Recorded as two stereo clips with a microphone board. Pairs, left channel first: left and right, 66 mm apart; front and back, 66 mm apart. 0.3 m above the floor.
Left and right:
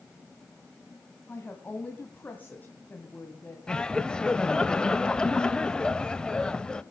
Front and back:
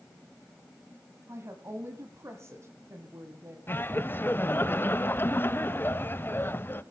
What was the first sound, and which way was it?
A woman speaking, 145° left.